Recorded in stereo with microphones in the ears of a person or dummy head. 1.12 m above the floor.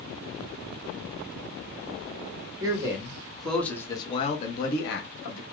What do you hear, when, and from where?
2.6 s a man speaking: 15° right (ahead or behind), 1.4 m; by 5.4 s 75° left (ahead or behind), 1.2 m